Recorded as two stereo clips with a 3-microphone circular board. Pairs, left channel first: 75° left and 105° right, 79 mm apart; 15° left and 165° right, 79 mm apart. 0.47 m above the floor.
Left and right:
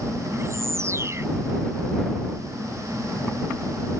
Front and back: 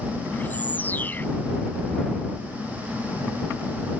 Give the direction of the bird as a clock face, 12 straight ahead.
2 o'clock.